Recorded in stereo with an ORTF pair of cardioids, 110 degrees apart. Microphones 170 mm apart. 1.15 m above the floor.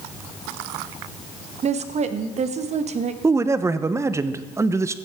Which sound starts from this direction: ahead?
A man speaking, at 3.2 s.